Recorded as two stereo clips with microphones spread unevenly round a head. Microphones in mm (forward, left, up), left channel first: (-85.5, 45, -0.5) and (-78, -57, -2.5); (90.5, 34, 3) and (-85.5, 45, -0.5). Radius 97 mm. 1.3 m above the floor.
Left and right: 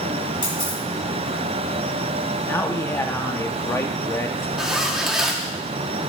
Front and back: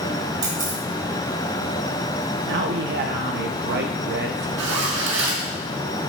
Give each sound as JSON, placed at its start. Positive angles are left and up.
{"t": 0.4, "sound": "a camera shutter", "azimuth_deg": 130, "distance_m": 2.5}
{"t": 2.5, "sound": "a man speaking", "azimuth_deg": 155, "distance_m": 1.1}
{"t": 4.6, "sound": "a zipper", "azimuth_deg": -170, "distance_m": 1.3}